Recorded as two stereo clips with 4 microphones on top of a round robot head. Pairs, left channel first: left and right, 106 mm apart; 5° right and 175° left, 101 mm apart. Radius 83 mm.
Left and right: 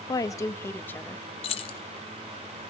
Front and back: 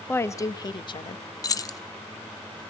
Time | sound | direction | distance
0.1 | a woman speaking | 55° left | 0.8 m
1.4 | keys jangling | 50° left | 0.7 m